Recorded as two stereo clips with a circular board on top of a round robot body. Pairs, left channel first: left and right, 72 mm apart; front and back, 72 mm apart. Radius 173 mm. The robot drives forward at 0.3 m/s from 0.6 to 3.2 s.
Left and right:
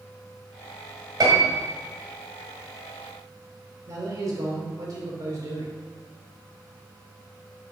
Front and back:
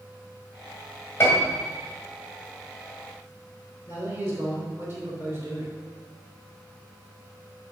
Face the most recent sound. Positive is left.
turn(degrees=-120)